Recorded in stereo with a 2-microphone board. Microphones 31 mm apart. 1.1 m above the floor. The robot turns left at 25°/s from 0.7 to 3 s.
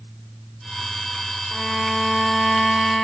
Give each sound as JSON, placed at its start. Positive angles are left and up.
{"t": 1.5, "sound": "a violin", "azimuth_deg": 175, "distance_m": 5.0}